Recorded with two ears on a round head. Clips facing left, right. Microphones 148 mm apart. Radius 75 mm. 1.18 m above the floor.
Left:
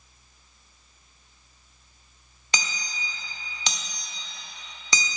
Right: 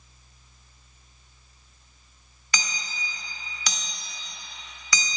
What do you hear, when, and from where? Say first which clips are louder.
2.5 s hammering: left 1 dB; 25° left (ahead or behind), 0.9 m